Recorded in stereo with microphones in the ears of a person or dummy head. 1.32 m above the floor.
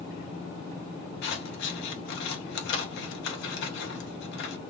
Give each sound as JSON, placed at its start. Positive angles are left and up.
{"t": 1.2, "sound": "scissors", "side_deg": 75, "distance_m": 0.8}